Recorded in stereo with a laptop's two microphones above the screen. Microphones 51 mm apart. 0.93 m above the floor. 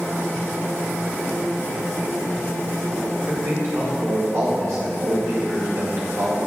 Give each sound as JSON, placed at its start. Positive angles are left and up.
{"t": 3.1, "sound": "a man speaking", "side_deg": -75, "distance_m": 2.5}